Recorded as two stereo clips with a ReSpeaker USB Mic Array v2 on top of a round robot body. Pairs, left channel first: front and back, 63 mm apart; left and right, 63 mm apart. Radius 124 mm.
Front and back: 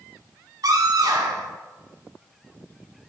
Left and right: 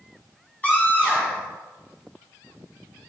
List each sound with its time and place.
0.6 s a scream: 155° left, 4.5 m